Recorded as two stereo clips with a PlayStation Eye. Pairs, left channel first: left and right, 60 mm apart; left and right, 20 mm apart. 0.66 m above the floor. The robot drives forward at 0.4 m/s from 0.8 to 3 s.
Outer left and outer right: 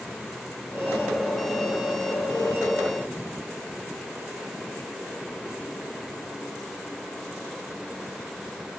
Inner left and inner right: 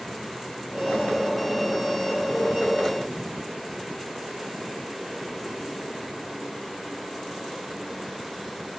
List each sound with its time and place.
Only background noise.